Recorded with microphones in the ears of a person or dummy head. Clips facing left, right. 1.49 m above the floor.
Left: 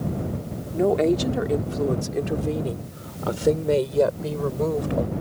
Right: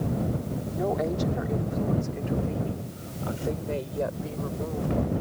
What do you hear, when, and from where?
0.7 s a woman speaking: 40° left (ahead or behind); by 5.1 s 85° left